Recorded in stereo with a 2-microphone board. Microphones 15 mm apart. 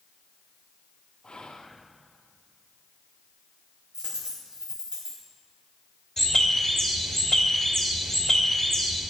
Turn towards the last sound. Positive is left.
turn(degrees=15)  # may be behind; listen again after turning